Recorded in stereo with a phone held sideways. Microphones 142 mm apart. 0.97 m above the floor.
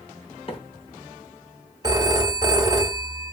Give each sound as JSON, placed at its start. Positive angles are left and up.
{"t": 0.5, "sound": "a microwave", "side_deg": 40, "distance_m": 0.8}
{"t": 1.8, "sound": "a phone ringing", "side_deg": -25, "distance_m": 0.5}